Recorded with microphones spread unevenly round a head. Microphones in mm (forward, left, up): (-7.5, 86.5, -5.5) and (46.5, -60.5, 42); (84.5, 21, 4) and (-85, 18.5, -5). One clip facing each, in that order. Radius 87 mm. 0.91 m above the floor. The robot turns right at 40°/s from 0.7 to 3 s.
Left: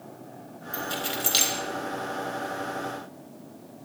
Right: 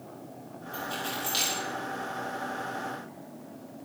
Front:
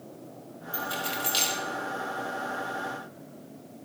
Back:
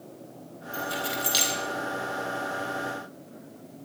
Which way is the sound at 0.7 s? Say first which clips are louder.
Left 3 dB, back 3 dB; 80° left.